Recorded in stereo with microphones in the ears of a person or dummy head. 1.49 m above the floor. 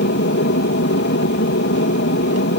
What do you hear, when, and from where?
0.0 s an aircraft: 55° left (ahead or behind)